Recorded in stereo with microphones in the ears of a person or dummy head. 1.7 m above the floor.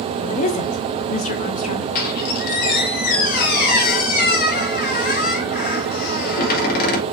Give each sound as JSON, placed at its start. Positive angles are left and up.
{"t": 0.2, "sound": "a woman speaking", "side_deg": 45, "distance_m": 0.9}
{"t": 1.9, "sound": "a squeak", "side_deg": 55, "distance_m": 2.0}